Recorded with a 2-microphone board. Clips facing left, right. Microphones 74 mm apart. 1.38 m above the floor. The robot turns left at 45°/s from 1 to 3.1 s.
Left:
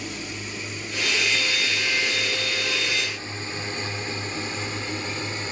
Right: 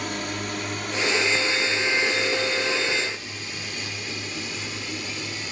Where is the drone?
60° right (ahead or behind); by 5.5 s 35° left (ahead or behind).